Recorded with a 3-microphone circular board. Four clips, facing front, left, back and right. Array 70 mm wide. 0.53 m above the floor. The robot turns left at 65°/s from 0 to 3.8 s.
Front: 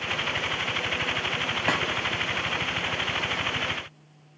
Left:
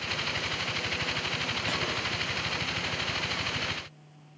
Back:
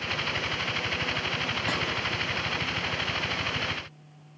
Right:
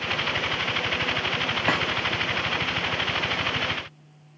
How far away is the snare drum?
About 2.5 m.